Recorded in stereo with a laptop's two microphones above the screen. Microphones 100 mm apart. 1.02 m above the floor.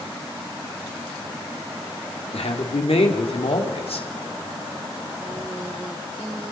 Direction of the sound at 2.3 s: 80° left.